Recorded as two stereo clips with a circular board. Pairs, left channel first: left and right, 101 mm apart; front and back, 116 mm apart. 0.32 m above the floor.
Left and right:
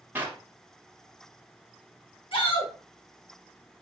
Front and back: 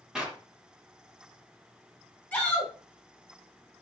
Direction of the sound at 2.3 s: 80° left.